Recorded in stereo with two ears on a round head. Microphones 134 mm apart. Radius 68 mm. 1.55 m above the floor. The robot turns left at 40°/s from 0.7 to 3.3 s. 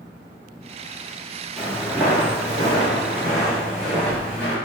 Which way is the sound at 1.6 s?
Centre (ahead or behind).